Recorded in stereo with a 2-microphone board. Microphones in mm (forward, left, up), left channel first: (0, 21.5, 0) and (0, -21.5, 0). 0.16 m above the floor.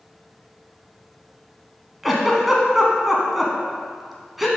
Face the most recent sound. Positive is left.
turn(degrees=-5)  # may be behind; listen again after turning